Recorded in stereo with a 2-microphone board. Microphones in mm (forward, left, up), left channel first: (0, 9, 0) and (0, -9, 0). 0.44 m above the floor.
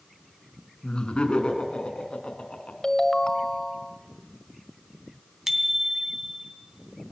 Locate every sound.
0.8 s laughter: 75° left (ahead or behind), 5 m; by 2.7 s 70° left (ahead or behind), 5 m
2.8 s a ringtone: 35° left (ahead or behind), 1.7 m
5.5 s a bicycle bell: 25° right (ahead or behind), 2.5 m